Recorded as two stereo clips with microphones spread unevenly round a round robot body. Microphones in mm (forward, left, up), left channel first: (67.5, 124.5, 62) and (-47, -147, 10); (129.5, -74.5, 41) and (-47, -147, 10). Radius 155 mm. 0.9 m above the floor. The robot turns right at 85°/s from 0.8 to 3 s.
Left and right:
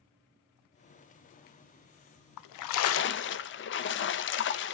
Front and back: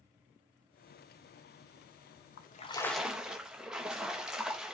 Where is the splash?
70° left, 0.5 m; by 4.8 s 120° left, 0.5 m.